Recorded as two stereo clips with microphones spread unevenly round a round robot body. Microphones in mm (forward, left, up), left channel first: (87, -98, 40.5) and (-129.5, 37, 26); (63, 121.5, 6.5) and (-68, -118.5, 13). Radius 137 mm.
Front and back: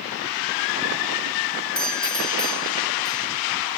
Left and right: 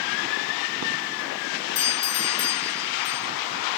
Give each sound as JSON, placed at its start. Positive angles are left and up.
{"t": 1.8, "sound": "a doorbell", "azimuth_deg": 55, "distance_m": 1.7}